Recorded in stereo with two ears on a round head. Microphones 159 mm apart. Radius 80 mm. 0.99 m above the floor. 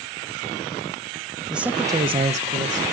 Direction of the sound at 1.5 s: 5° right (ahead or behind).